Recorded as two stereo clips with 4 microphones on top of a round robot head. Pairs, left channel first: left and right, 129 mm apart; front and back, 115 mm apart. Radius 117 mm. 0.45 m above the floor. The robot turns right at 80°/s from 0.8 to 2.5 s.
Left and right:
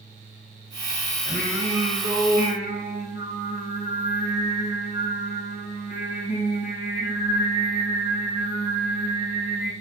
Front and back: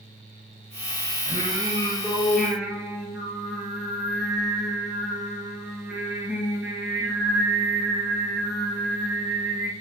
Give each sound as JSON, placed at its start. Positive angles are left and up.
{"t": 1.3, "sound": "singing", "azimuth_deg": 5, "distance_m": 2.0}